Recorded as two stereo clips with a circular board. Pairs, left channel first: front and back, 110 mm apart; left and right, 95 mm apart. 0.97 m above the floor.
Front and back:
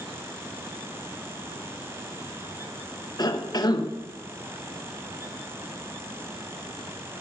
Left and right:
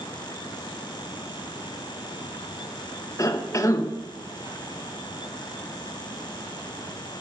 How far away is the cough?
About 1.0 m.